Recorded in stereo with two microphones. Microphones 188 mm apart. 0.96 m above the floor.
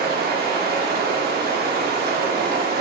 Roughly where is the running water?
Right.